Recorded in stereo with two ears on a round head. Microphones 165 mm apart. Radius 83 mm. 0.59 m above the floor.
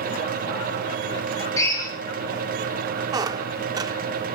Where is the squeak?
20° right (ahead or behind), 0.6 m.